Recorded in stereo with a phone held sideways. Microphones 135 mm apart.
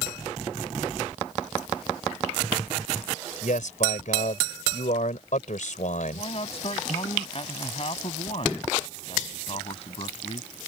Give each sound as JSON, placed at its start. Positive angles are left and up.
{"t": 3.4, "sound": "a man speaking", "side_deg": 70}
{"t": 6.1, "sound": "a man speaking", "side_deg": 45}